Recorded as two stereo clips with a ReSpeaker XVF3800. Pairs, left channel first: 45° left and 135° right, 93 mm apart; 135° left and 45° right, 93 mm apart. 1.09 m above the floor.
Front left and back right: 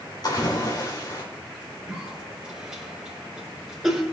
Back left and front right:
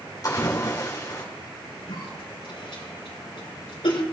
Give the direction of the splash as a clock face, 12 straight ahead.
9 o'clock.